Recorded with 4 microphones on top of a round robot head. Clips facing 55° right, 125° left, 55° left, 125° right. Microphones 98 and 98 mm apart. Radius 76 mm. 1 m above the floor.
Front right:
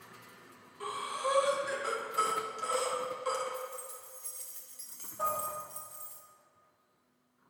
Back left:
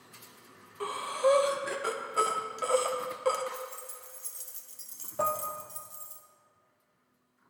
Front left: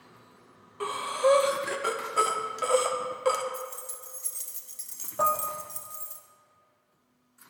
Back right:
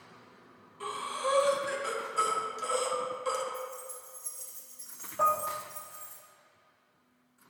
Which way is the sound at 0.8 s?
90° left.